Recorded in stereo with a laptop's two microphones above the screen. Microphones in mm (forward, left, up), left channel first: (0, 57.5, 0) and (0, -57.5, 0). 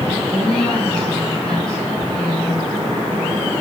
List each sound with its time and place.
0.3 s a woman speaking: 10° left (ahead or behind), 8 m